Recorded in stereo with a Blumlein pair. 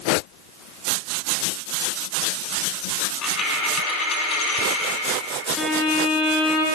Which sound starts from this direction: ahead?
A violin, at 5.6 s.